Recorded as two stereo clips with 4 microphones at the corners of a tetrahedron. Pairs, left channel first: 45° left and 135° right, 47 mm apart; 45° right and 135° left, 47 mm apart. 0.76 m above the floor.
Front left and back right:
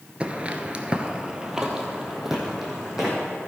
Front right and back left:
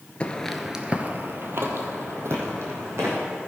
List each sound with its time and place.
0.2 s footsteps: 90° right, 0.9 m; by 3.2 s 140° left, 3 m